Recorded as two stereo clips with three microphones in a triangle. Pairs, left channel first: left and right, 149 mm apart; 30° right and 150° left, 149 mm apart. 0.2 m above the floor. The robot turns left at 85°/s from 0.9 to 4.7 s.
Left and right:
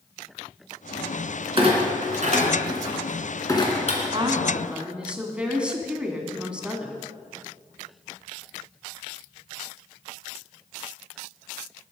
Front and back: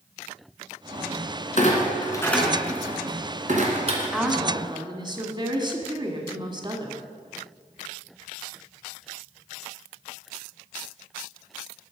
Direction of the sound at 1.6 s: 45° right.